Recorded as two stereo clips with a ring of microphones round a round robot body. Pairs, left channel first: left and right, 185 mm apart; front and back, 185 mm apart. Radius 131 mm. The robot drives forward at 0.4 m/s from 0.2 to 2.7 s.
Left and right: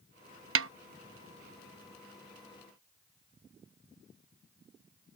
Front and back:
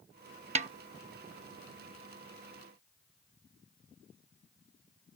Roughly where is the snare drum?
Behind right.